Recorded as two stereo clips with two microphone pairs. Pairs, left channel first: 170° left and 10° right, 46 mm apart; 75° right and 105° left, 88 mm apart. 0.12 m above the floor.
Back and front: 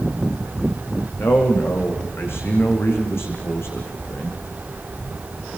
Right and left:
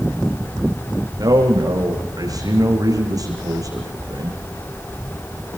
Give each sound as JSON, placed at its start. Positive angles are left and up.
{"t": 1.2, "sound": "a man speaking", "azimuth_deg": 145, "distance_m": 7.0}